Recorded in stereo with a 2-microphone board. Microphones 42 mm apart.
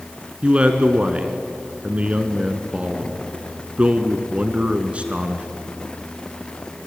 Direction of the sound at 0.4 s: 30° right (ahead or behind).